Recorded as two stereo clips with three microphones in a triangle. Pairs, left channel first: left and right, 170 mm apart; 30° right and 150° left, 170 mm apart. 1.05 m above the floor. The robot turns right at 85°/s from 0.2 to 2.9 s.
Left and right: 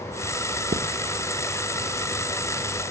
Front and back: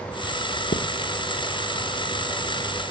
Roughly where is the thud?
Ahead right.